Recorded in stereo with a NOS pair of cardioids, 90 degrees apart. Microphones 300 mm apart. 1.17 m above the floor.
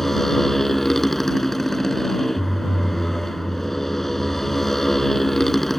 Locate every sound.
0.0 s a motorcycle: straight ahead